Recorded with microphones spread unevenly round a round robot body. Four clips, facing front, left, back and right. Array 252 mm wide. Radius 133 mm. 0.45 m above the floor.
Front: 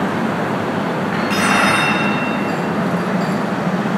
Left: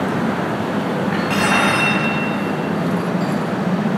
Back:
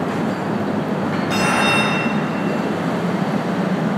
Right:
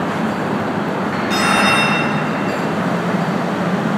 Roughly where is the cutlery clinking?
Behind left.